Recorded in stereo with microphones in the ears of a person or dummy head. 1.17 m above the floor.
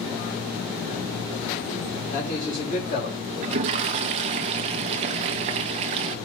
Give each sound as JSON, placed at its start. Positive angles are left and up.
{"t": 2.1, "sound": "a man speaking", "side_deg": 45, "distance_m": 2.5}
{"t": 3.4, "sound": "a toilet flushing", "side_deg": -40, "distance_m": 0.6}